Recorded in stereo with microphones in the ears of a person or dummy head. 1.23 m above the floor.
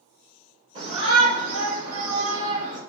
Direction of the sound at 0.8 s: 45° right (ahead or behind).